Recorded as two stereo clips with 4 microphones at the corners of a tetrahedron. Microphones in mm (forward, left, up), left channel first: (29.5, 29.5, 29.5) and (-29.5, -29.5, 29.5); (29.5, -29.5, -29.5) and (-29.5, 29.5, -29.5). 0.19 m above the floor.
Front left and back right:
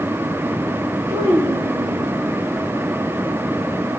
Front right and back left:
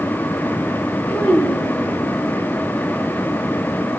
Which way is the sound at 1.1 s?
125° right.